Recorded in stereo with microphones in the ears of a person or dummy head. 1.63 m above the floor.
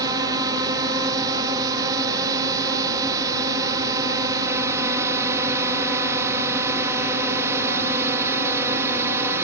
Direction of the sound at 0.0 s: 20° right (ahead or behind).